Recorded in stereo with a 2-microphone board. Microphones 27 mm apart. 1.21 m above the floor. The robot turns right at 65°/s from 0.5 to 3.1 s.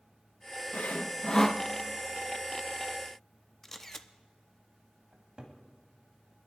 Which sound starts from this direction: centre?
A camera shutter, at 3.6 s.